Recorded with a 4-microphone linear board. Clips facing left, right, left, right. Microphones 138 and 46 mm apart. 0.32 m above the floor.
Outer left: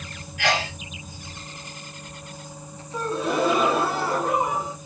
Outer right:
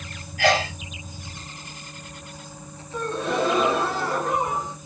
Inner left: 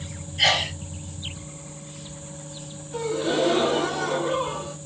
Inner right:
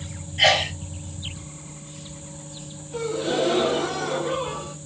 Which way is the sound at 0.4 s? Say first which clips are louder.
Outer right 4 dB, inner right 3 dB; 35° right (ahead or behind).